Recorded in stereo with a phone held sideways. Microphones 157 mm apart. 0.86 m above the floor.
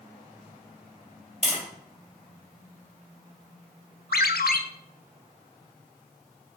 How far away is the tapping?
About 3 m.